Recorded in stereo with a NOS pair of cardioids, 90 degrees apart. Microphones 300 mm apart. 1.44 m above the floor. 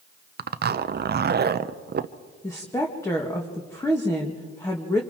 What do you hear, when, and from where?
0.4 s a zipper: 35° right, 0.8 m
2.4 s a woman speaking: 10° left, 1.9 m